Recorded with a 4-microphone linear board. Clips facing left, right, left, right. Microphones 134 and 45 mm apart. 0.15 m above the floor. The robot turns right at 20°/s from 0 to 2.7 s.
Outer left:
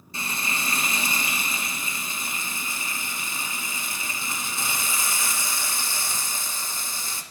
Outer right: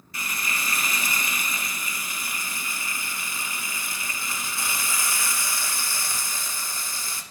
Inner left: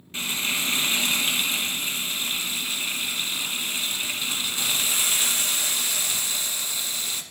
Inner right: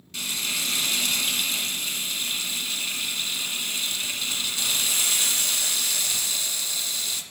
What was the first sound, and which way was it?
Frying, 30° left (ahead or behind).